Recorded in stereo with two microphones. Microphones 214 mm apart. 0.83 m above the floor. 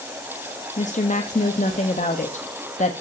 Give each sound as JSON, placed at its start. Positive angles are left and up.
{"t": 0.8, "sound": "a woman speaking", "side_deg": 35, "distance_m": 1.2}